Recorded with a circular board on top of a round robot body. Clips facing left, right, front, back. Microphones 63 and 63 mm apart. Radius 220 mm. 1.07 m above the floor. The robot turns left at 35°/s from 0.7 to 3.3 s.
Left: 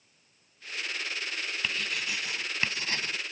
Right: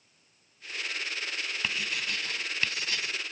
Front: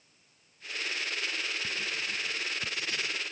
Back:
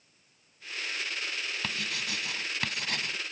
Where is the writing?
170° right; by 3.2 s 135° left.